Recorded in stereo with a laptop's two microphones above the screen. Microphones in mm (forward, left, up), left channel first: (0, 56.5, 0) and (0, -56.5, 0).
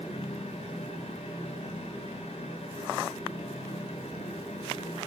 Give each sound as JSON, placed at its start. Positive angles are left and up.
{"t": 0.0, "sound": "a fan", "side_deg": 85, "distance_m": 5.0}